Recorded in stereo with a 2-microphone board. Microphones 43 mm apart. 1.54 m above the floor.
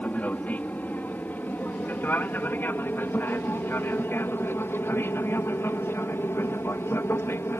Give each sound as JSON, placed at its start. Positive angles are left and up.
{"t": 0.0, "sound": "an aircraft", "side_deg": 35}